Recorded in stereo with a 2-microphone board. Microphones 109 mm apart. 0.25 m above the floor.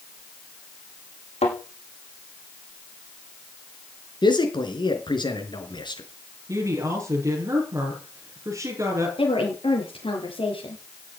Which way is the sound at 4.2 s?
45° left (ahead or behind).